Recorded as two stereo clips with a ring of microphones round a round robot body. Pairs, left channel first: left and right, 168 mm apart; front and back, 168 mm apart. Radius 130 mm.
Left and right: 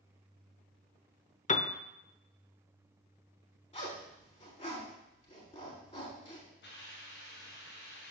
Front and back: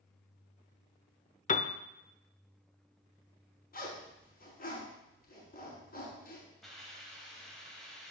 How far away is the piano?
About 0.6 m.